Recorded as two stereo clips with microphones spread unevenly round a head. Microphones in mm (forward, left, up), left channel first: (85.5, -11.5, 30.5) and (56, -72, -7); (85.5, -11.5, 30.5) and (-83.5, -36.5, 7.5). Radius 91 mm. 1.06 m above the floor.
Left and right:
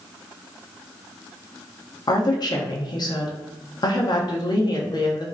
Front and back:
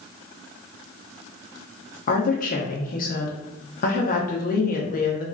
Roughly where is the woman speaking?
Ahead left.